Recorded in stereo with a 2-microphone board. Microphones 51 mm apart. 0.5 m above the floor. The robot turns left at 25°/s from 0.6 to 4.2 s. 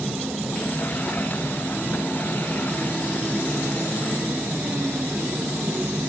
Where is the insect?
Straight ahead, 4 m; by 6.1 s 90° right, 4 m.